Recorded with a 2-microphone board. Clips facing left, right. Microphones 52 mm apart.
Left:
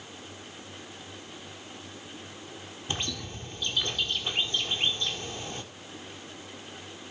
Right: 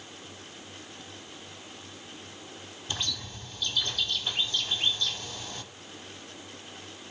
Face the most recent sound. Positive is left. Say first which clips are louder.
# left 1 dB
turn(degrees=35)  # may be behind; listen again after turning